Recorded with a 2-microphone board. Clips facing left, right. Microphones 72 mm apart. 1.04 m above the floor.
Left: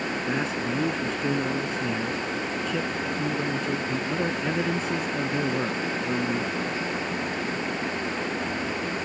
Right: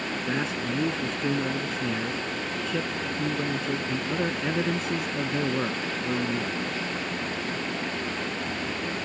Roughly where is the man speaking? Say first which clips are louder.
Even; centre.